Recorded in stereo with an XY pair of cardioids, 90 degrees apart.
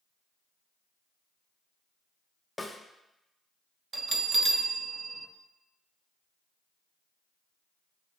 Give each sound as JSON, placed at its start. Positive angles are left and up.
{"t": 2.6, "sound": "a snare drum", "azimuth_deg": 20, "distance_m": 0.7}
{"t": 3.9, "sound": "a bell", "azimuth_deg": -45, "distance_m": 0.6}